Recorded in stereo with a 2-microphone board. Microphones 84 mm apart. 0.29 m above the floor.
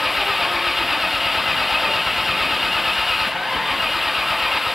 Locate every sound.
0.0 s an engine running: centre (ahead or behind)